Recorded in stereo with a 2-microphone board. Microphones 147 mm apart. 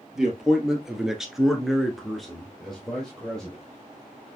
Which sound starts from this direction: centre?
A man speaking, at 0.1 s.